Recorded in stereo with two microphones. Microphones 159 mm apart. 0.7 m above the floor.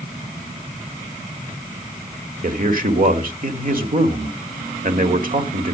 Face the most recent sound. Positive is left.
turn(degrees=-60)  # may be behind; listen again after turning